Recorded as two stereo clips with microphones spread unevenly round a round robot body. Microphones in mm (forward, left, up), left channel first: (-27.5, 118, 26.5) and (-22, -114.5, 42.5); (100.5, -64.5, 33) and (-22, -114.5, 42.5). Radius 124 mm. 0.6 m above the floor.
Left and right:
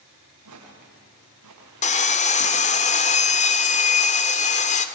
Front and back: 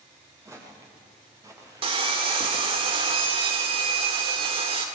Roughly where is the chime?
No chime in this recording.